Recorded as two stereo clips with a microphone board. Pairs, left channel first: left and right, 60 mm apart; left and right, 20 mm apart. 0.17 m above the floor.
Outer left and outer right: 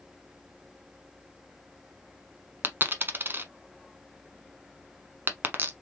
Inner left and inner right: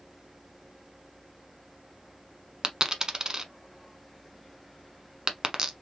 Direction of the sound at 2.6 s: 35° right (ahead or behind).